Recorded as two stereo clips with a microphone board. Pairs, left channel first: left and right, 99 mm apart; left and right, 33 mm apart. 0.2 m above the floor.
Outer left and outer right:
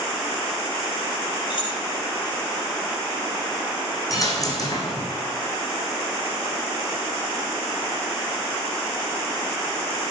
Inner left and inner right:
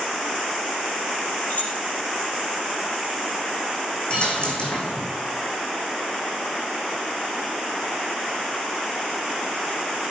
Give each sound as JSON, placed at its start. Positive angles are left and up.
{"t": 1.5, "sound": "keys jangling", "side_deg": 55, "distance_m": 4.0}
{"t": 4.1, "sound": "a dropped coin", "side_deg": 35, "distance_m": 3.0}